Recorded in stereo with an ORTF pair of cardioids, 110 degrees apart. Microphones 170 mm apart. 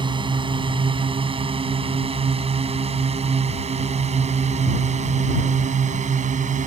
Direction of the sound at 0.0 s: 30° right.